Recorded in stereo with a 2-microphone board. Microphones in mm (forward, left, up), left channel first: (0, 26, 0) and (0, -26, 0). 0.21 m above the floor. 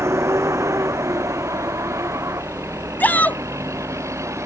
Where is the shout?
40° left (ahead or behind).